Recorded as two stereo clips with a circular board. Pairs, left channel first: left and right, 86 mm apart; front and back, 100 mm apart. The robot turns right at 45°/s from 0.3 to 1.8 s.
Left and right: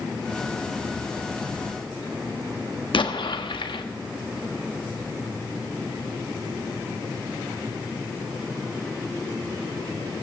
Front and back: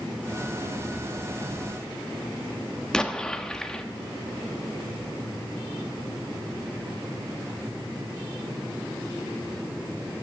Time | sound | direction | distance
2.9 | an explosion | 85° left | 1.1 m